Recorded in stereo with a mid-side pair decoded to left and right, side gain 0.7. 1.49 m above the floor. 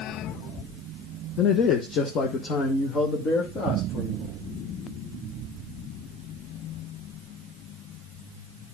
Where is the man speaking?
45° left, 1.1 m; by 4.3 s 50° left, 3 m.